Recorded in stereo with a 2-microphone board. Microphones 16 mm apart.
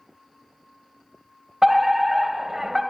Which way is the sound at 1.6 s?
25° right (ahead or behind).